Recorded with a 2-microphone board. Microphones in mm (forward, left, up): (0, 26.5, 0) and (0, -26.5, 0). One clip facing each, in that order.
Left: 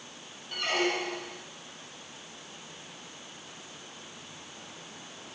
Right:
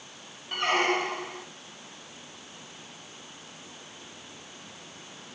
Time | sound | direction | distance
0.5 | a squeak | 50° right (ahead or behind) | 0.9 m